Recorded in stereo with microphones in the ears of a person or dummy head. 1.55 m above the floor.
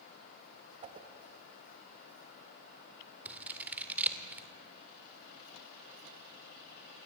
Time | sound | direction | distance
0.8 | a whoosh | 30° right (ahead or behind) | 1.5 m
3.2 | scissors | 10° right (ahead or behind) | 2 m